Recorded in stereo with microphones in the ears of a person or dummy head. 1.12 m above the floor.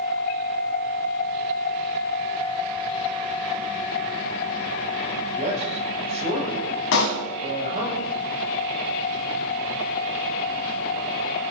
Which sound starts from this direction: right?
A man speaking, at 5.4 s.